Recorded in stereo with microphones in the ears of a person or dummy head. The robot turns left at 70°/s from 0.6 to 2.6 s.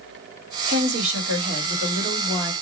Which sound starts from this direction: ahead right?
A woman speaking, at 0.7 s.